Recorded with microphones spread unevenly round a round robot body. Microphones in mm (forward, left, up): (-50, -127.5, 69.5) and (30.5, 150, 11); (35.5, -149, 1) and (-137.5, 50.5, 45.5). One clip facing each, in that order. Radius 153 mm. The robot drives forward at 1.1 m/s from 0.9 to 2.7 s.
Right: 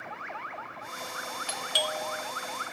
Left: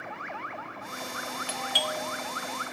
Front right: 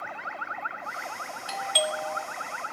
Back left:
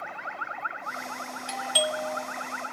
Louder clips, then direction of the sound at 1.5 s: Right 1 dB, even; 115° right.